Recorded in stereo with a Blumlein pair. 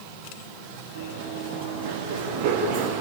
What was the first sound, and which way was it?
Running footsteps, 70° right.